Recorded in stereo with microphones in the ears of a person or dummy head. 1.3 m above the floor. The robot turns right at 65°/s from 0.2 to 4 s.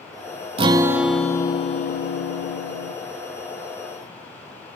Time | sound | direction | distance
0.6 | a guitar | 25° right | 1.0 m